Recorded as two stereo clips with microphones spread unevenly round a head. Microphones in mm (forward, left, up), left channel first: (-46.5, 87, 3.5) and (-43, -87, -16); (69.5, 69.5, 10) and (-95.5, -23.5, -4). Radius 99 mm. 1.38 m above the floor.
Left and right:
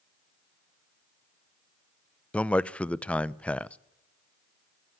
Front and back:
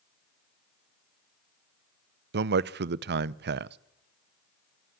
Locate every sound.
2.3 s a man speaking: 175° left, 0.7 m